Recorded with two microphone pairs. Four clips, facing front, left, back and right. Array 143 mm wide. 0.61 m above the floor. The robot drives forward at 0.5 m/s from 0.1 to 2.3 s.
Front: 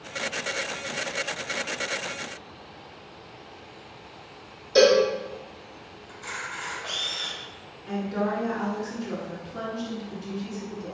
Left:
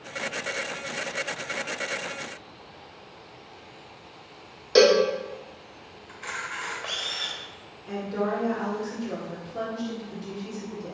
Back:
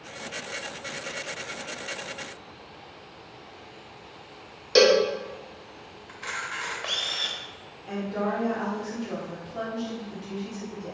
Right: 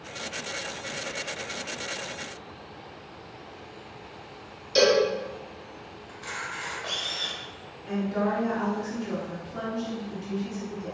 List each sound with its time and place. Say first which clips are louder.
4.8 s a cowbell: left 3 dB, front 1 dB; 125° left, 0.6 m
6.1 s a camera shutter: left 2 dB, back 2 dB; 170° left, 0.7 m
7.9 s a woman speaking: right 1 dB, front 1 dB; 45° right, 1.2 m